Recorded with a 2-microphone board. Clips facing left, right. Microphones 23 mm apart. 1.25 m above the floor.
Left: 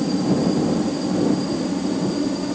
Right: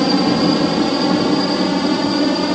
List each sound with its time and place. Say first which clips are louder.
0.0 s a helicopter: right 5 dB; 55° right (ahead or behind); by 2.6 s 50° right (ahead or behind)